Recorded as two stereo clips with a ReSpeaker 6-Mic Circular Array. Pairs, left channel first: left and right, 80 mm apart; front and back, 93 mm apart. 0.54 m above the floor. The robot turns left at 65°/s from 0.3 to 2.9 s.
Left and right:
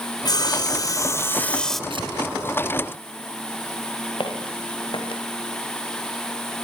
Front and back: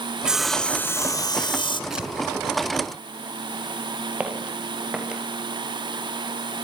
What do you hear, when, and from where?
0.2 s sawing: 100° left, 1.3 m; by 1.8 s straight ahead, 1.3 m
1.9 s tearing paper: 95° right, 4 m; by 2.1 s 105° right, 4 m
4.2 s footsteps: 100° left, 6.5 m